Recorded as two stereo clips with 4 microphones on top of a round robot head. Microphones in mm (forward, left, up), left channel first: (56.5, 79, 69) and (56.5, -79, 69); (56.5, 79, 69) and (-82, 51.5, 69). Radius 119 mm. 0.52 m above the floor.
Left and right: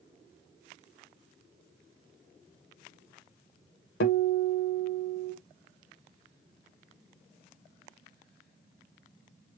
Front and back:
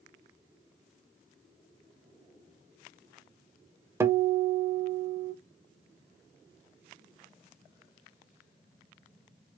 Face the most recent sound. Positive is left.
turn(degrees=120)